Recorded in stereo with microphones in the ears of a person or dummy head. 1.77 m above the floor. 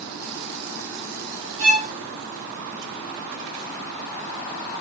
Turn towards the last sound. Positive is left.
turn(degrees=-45)  # may be behind; listen again after turning